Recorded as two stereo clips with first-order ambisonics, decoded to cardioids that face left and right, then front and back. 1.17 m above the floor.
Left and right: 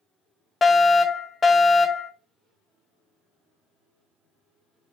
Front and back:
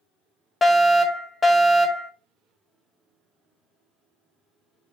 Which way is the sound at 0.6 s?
55° left.